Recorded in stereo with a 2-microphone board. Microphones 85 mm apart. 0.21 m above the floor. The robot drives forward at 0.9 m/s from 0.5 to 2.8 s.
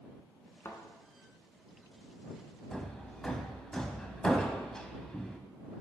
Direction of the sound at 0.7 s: 35° left (ahead or behind).